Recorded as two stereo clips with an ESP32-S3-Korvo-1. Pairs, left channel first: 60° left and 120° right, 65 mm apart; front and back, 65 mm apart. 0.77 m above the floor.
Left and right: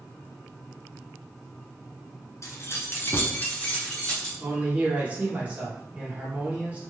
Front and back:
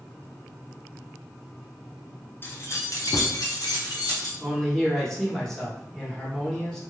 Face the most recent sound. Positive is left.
turn(degrees=-75)